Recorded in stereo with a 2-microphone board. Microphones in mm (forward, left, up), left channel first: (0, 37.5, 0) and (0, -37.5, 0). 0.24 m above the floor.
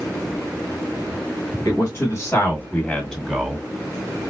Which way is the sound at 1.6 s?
50° left (ahead or behind).